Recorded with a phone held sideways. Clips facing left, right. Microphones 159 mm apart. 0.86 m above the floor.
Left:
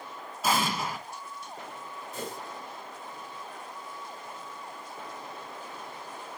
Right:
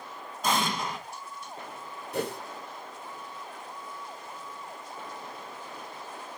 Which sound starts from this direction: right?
A whoosh, at 2.1 s.